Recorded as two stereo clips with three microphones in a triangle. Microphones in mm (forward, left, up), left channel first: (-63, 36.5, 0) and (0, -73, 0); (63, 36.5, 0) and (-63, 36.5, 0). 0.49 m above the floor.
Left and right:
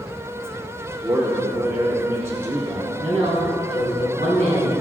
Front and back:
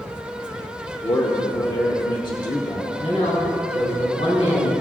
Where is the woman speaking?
35° right, 4 m.